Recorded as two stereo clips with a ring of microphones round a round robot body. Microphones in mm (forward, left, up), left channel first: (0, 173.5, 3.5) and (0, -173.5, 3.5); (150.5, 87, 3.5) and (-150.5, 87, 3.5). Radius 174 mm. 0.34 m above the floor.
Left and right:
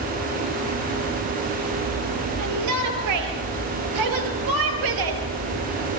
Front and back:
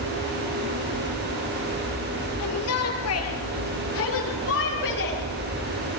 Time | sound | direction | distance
2.4 | a shout | 50° right | 6.5 m